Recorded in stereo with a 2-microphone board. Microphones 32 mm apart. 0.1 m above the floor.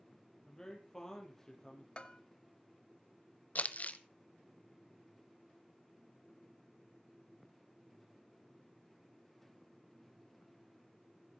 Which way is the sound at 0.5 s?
15° left (ahead or behind).